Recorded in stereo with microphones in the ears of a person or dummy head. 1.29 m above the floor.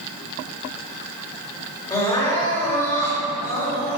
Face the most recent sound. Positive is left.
turn(degrees=20)  # may be behind; listen again after turning